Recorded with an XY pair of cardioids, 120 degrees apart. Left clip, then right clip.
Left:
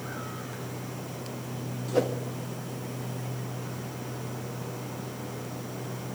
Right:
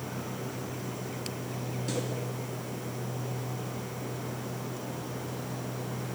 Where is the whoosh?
65° left, 1.9 m.